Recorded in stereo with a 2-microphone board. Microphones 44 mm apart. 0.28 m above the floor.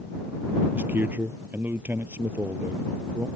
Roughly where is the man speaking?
Right.